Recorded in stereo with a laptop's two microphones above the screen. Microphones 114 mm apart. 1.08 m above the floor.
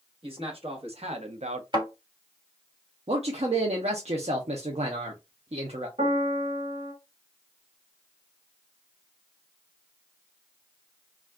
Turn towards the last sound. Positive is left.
turn(degrees=-65)  # may be behind; listen again after turning